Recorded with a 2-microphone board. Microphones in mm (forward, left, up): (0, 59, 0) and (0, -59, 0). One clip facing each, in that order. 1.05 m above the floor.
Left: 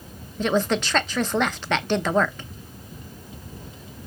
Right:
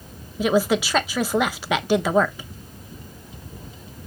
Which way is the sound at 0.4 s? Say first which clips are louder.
Right 3 dB; 10° right (ahead or behind).